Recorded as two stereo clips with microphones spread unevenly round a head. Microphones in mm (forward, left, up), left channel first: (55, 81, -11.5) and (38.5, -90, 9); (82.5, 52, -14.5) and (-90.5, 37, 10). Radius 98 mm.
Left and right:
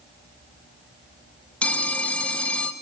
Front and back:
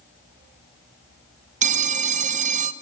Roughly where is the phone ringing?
Behind.